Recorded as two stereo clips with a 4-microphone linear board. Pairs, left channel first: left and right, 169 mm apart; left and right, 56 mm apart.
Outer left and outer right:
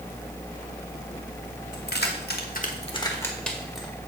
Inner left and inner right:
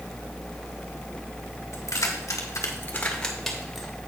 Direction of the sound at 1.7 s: 65° left (ahead or behind).